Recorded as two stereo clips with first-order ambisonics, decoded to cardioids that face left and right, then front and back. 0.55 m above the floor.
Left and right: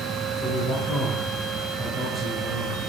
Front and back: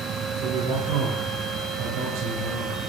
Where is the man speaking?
165° left, 9.5 m; by 2.8 s straight behind, 8.5 m.